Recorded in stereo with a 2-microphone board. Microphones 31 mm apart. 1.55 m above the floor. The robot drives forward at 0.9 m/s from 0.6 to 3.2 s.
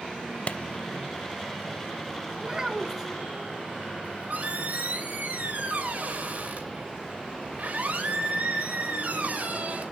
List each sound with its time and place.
0.5 s a clap: 45° left (ahead or behind), 0.7 m
2.4 s a child speaking: 25° right (ahead or behind), 2.5 m; by 3.1 s 20° right (ahead or behind), 3 m
4.0 s a squeak: 50° right (ahead or behind), 4 m